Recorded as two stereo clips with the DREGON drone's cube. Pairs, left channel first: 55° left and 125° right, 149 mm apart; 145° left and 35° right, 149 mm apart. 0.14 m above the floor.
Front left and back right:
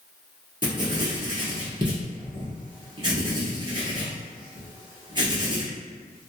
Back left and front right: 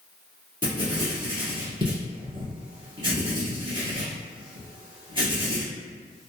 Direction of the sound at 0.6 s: 80° right.